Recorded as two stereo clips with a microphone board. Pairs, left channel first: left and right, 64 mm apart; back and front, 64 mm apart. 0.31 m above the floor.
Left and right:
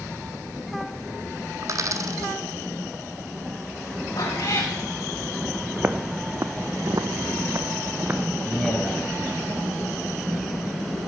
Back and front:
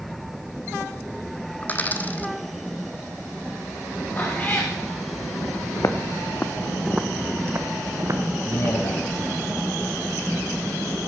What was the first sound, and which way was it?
A dropped coin, 120° right.